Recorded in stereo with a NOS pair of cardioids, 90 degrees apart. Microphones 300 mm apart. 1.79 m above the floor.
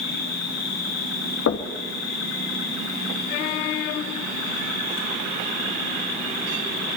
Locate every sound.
0.0 s an insect: 60° left, 6 m
1.5 s knocking: 55° left, 2.5 m